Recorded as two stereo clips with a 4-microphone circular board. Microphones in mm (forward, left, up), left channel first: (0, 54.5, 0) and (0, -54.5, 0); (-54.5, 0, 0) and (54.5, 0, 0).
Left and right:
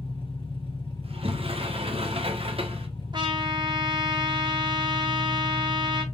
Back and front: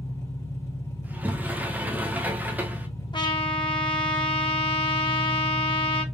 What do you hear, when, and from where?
0.0 s an engine running: 120° left, 1.4 m
1.0 s a sliding door: 75° right, 0.7 m
3.1 s a trumpet: 135° right, 1.0 m